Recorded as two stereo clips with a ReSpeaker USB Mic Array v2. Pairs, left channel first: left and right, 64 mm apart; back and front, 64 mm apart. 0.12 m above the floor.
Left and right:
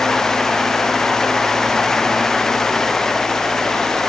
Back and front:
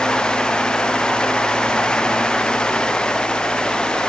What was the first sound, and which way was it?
Only background noise.